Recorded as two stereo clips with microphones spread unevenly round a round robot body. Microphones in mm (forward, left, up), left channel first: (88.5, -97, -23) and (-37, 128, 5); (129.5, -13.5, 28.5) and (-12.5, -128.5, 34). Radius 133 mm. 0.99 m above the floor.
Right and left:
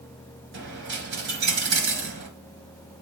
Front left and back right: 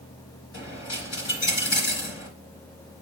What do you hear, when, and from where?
0.5 s a dropped coin: 80° left, 3.5 m